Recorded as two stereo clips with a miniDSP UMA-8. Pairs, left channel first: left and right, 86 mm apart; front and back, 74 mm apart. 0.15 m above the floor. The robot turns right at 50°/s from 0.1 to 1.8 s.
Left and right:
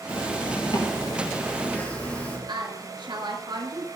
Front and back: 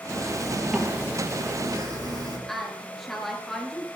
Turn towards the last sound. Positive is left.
turn(degrees=-85)